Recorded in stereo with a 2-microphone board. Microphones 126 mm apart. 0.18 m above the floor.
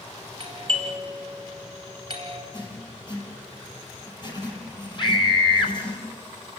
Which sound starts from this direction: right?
A doorbell, at 0.4 s.